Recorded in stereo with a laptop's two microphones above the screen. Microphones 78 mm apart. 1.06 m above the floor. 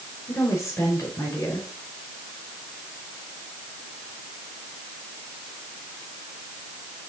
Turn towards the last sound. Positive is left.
turn(degrees=45)  # may be behind; listen again after turning